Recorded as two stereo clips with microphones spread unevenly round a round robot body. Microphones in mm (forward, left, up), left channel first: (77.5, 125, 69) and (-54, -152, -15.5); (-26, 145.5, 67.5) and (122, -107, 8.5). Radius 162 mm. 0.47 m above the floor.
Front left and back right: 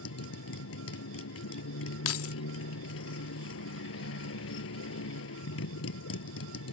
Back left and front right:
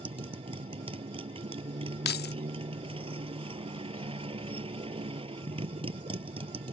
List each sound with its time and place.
0.0 s a motorcycle: 15° left
2.0 s keys jangling: 75° left